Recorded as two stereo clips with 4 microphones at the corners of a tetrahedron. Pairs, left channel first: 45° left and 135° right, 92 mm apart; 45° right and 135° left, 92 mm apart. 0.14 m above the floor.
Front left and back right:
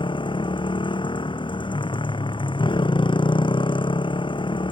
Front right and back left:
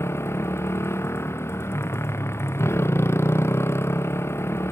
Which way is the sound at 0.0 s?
15° left.